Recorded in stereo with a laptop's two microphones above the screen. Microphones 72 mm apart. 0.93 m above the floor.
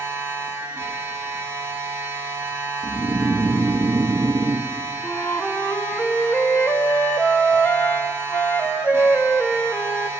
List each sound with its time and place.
0.0 s a machine running: 30° right (ahead or behind), 1.8 m
2.8 s snoring: 40° right (ahead or behind), 0.8 m
5.0 s a flute: 20° left (ahead or behind), 0.8 m